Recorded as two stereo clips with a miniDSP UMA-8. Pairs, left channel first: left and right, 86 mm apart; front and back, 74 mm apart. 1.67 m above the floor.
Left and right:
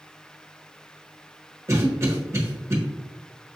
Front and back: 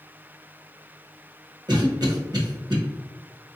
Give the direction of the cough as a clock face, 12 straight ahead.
5 o'clock.